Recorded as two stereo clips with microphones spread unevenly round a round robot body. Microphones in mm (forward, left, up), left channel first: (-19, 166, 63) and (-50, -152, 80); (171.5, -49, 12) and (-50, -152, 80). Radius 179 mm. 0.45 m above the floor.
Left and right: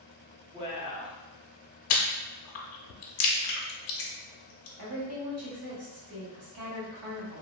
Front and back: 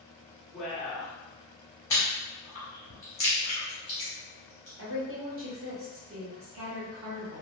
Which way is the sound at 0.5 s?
30° right.